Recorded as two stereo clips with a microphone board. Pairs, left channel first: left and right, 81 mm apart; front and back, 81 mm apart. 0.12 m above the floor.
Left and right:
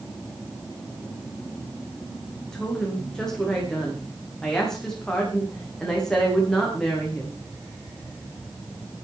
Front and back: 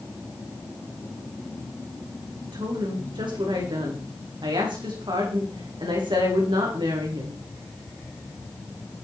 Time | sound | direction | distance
2.5 | a woman speaking | 175° left | 8 m